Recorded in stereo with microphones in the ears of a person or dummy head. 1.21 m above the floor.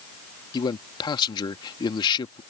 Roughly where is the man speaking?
Left.